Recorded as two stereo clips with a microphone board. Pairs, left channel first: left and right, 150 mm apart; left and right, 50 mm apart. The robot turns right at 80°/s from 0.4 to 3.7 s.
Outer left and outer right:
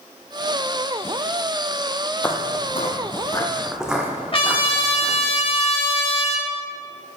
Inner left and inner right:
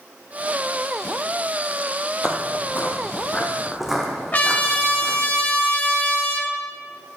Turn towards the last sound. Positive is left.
turn(degrees=35)  # may be behind; listen again after turning